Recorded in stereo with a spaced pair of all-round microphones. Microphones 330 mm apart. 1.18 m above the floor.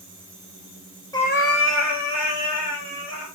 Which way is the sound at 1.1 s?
10° left (ahead or behind).